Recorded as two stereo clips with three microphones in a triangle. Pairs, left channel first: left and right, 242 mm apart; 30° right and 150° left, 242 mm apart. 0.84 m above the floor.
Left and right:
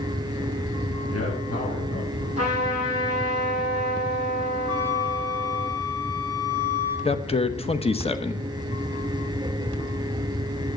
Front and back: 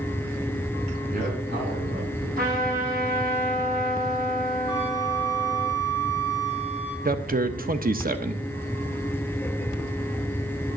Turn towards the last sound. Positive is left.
turn(degrees=135)